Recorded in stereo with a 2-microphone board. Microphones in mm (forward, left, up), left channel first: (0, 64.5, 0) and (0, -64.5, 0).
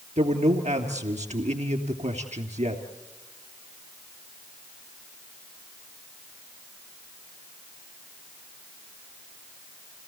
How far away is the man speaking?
About 3 m.